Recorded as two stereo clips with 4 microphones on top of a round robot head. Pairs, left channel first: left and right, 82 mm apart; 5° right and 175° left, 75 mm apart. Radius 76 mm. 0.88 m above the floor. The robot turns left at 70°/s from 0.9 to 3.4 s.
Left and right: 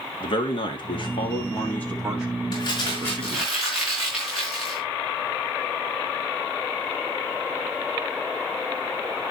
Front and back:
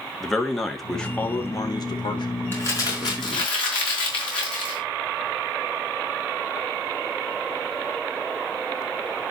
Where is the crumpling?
60° left, 5 m; by 4.8 s 5° right, 5 m.